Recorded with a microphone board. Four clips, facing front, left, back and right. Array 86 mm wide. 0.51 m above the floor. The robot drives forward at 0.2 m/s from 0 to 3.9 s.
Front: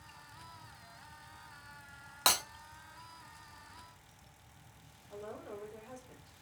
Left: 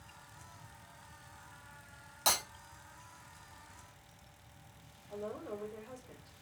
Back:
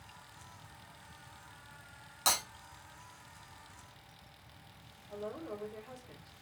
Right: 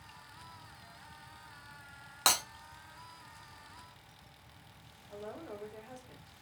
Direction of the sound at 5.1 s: 160° left.